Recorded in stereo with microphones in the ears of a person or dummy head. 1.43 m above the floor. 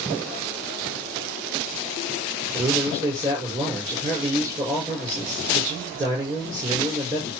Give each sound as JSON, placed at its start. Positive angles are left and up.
{"t": 2.5, "sound": "a man speaking", "side_deg": -25, "distance_m": 6.0}